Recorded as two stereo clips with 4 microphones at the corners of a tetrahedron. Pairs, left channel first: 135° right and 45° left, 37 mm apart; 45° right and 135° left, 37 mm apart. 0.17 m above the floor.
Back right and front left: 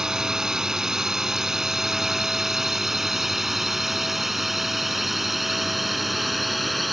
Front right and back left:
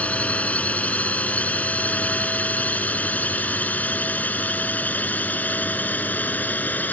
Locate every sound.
0.0 s a drone: 20° right; by 6.9 s 45° right